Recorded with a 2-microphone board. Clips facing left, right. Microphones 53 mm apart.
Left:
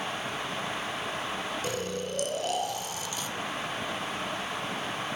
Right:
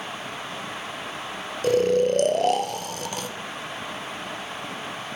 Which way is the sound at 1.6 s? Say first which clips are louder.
Right 13 dB; 55° right (ahead or behind).